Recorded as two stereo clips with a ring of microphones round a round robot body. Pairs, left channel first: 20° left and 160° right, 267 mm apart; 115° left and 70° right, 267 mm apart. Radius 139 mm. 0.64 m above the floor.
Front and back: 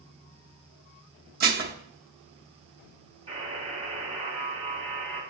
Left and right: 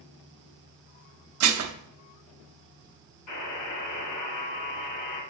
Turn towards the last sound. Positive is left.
turn(degrees=135)